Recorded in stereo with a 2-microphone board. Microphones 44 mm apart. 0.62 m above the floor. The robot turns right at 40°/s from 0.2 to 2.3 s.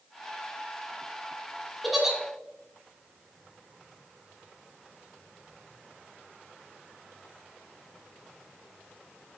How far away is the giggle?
About 1.3 m.